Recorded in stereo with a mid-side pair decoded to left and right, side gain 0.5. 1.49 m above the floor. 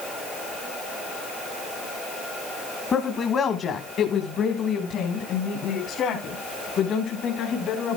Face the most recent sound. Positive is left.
turn(degrees=65)